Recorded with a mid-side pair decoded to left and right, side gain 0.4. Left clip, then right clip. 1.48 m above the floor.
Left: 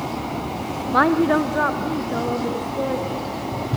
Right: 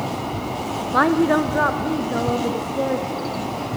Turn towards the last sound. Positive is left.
turn(degrees=-20)